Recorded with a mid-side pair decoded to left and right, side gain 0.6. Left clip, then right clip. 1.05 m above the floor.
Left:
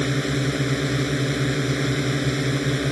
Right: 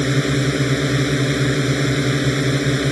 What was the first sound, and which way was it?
A drone, 25° right.